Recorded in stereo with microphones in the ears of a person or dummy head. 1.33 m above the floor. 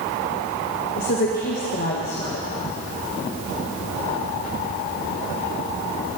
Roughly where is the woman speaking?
Left.